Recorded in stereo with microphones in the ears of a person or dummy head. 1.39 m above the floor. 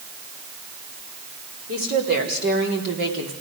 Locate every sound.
1.7 s a woman speaking: 40° right (ahead or behind), 4 m; by 3.3 s 60° right (ahead or behind), 2.5 m